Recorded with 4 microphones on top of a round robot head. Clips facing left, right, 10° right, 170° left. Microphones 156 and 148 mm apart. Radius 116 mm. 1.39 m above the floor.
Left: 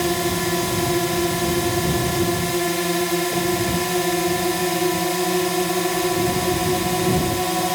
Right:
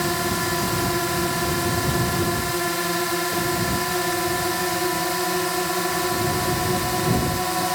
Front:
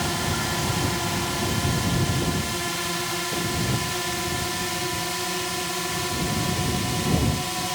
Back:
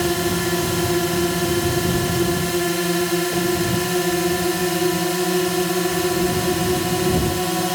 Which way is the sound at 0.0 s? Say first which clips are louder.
Left 3 dB, back 8 dB; 155° left.